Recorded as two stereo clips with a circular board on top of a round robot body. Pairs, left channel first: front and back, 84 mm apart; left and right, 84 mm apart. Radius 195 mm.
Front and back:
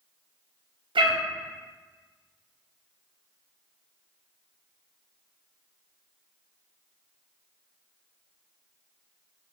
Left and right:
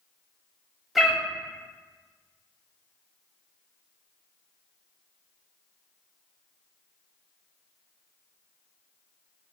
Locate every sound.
0.9 s a cat meowing: 175° right, 0.5 m